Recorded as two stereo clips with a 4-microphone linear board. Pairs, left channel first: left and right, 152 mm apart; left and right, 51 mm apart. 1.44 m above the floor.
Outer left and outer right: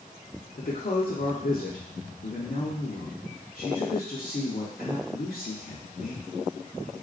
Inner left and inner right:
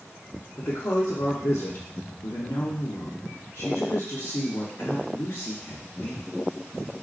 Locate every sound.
0.6 s a woman speaking: 75° left (ahead or behind), 0.8 m